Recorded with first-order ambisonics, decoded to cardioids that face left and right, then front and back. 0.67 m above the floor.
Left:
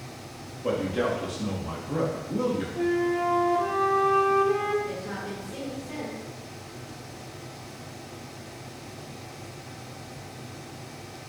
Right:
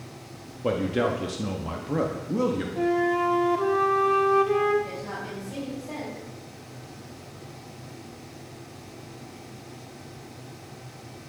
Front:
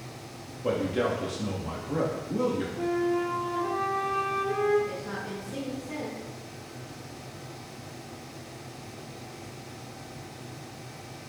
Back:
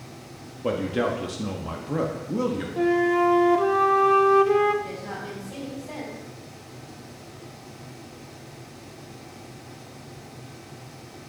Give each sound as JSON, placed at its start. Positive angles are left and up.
{"t": 0.6, "sound": "a man speaking", "azimuth_deg": -130, "distance_m": 0.6}
{"t": 2.8, "sound": "a flute", "azimuth_deg": -165, "distance_m": 0.6}
{"t": 4.8, "sound": "a woman speaking", "azimuth_deg": -135, "distance_m": 3.5}